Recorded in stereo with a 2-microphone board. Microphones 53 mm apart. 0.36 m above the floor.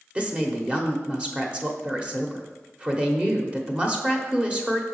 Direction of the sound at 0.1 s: 20° right (ahead or behind).